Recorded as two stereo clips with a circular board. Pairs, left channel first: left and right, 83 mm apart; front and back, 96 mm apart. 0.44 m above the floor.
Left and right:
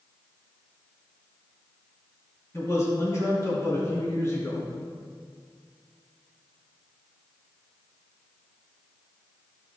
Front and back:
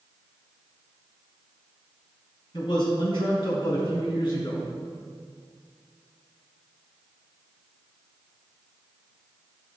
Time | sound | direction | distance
2.5 | a man speaking | 35° left | 3.5 m